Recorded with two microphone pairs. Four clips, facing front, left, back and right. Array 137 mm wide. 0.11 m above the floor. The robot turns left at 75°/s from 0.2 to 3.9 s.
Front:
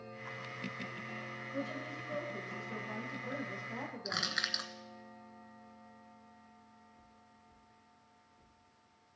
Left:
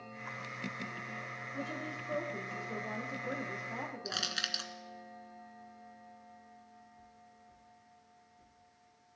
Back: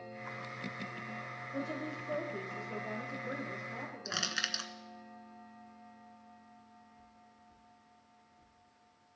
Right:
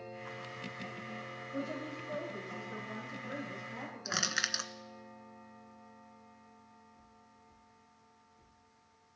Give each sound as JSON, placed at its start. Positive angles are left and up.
{"t": 1.5, "sound": "a woman speaking", "azimuth_deg": -145, "distance_m": 3.5}
{"t": 4.0, "sound": "crushing", "azimuth_deg": -80, "distance_m": 0.9}